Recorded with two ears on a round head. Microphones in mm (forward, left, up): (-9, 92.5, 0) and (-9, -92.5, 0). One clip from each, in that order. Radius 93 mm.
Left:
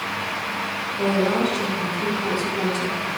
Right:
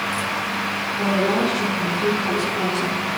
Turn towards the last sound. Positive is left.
turn(degrees=25)  # may be behind; listen again after turning